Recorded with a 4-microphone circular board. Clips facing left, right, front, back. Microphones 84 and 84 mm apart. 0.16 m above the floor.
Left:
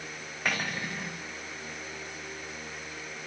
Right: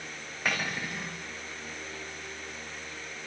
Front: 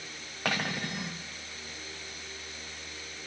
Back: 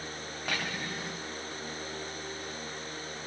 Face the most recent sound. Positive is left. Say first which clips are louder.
# even, front 4 dB
turn(degrees=0)